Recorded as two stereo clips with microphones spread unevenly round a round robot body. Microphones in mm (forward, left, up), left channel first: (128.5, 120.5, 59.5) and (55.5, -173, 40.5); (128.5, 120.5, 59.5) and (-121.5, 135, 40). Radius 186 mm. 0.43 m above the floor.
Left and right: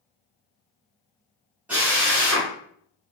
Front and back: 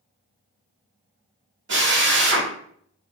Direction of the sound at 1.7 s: 175° left.